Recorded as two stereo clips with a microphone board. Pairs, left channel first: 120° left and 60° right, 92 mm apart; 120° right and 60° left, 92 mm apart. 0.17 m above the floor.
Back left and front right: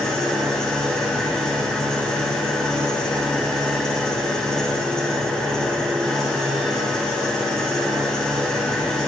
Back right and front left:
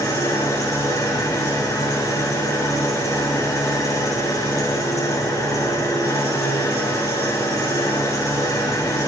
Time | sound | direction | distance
0.0 | an engine running | 160° right | 2 m